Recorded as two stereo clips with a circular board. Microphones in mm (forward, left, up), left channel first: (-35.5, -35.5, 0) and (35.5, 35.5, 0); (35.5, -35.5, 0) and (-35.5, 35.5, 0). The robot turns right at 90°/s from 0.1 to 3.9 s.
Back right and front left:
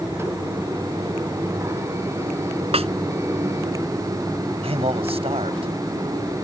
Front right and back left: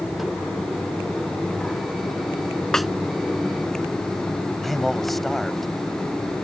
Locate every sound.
2.7 s a snare drum: 40° left; by 2.9 s 50° left
4.6 s a man speaking: 45° left